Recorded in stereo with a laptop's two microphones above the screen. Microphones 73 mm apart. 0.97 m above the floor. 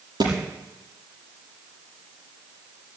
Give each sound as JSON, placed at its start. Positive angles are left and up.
{"t": 0.2, "sound": "a thud", "side_deg": -70, "distance_m": 5.5}